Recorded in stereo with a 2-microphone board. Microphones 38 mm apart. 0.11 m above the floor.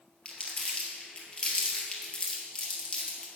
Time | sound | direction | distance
0.2 | crumpling | 30° left (ahead or behind) | 2.5 m